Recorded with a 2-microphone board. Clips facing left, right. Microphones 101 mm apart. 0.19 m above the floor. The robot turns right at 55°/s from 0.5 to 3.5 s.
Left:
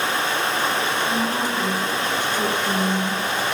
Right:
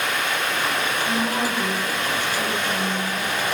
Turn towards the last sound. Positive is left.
turn(degrees=105)